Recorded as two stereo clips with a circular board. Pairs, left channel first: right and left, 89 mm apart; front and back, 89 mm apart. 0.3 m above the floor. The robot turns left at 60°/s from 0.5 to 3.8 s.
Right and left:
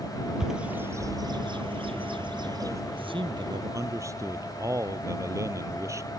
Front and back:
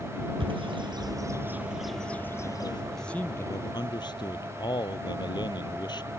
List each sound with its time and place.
0.4 s a bird: 175° left; by 2.8 s 35° left
2.9 s a man speaking: 90° left; by 6.1 s 35° left